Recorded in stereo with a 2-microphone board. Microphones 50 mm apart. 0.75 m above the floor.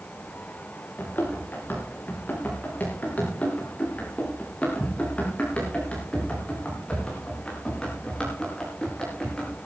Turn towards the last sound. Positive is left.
turn(degrees=15)  # may be behind; listen again after turning